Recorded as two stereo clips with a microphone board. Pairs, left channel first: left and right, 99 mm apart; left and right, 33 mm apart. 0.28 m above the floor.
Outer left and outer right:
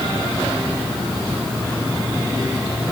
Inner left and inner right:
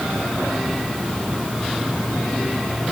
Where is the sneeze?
I don't hear a sneeze.